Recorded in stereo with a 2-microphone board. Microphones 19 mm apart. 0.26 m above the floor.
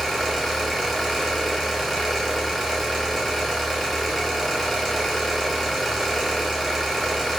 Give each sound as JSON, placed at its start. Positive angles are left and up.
{"t": 0.0, "sound": "an engine running", "side_deg": 15, "distance_m": 1.3}